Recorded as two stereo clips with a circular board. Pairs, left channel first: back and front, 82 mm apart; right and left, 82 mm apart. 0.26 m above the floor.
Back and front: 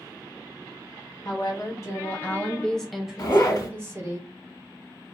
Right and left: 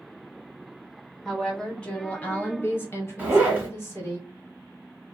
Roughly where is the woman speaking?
Behind.